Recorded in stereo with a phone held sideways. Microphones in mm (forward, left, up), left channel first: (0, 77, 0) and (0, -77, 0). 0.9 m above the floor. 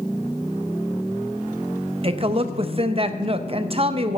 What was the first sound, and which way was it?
A woman speaking, 40° right (ahead or behind).